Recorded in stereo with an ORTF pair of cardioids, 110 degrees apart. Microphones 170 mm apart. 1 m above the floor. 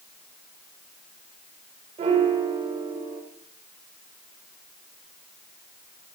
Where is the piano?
40° right, 4.5 m.